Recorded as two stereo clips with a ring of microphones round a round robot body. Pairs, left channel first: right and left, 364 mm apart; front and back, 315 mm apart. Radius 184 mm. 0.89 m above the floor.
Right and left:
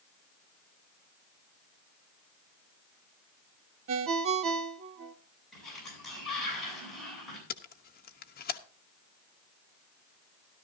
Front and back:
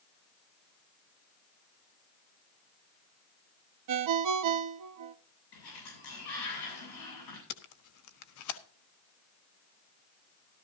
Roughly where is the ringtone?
Behind left.